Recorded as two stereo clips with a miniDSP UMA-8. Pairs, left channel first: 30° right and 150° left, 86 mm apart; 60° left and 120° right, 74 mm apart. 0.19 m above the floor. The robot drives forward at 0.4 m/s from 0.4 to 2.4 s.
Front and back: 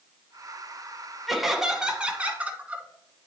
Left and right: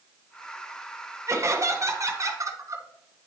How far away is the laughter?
About 1.2 m.